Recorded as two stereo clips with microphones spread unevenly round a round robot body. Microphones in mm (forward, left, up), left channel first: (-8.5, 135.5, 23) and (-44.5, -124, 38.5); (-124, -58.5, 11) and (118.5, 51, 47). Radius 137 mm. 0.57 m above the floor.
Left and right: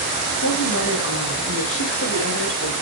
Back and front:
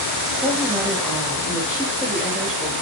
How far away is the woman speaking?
About 4.5 m.